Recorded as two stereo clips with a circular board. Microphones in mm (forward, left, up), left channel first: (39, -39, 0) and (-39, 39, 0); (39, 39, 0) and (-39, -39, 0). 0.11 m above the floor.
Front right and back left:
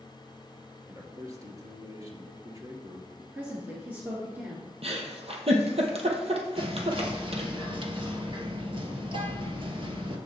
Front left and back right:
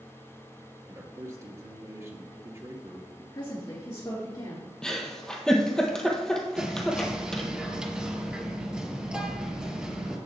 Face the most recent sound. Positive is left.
turn(degrees=145)